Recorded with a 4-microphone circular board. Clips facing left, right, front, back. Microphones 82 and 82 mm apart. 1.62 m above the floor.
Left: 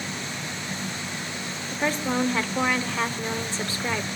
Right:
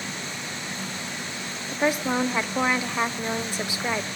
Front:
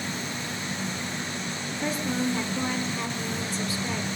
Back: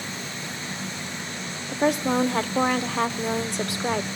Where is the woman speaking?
165° right, 0.7 m.